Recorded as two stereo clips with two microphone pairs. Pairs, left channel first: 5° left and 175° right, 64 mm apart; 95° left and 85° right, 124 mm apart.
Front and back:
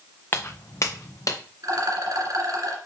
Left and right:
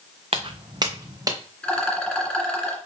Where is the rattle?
170° left, 1.9 m.